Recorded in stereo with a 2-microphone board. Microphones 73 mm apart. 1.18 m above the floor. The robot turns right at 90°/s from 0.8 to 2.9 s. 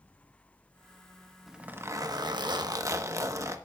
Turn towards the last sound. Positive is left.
turn(degrees=-45)